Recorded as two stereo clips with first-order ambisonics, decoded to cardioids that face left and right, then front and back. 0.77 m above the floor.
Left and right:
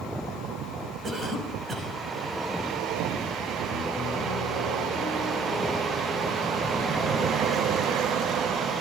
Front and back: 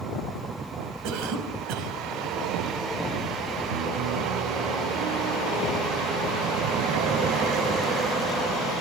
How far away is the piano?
About 3.5 m.